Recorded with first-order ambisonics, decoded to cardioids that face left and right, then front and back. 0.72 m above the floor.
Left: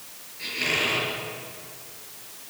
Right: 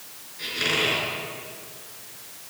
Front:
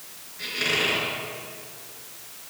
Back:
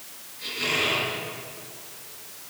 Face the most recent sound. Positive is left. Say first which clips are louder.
# right 1 dB, front 1 dB
turn(degrees=-60)